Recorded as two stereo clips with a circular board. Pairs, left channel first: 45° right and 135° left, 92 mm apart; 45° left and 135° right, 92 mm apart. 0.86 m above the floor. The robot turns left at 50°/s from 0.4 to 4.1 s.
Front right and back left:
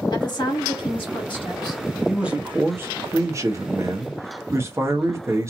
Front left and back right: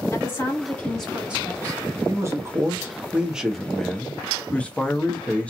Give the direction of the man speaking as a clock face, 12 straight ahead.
5 o'clock.